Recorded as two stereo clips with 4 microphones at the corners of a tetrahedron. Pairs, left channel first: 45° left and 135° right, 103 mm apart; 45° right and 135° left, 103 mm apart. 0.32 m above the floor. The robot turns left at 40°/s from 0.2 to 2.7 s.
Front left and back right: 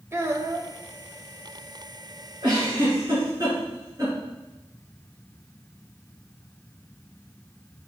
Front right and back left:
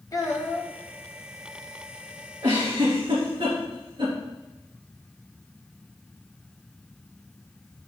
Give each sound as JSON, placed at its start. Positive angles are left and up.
{"t": 0.1, "sound": "a child speaking", "azimuth_deg": -80, "distance_m": 1.0}
{"t": 2.4, "sound": "a giggle", "azimuth_deg": -175, "distance_m": 3.5}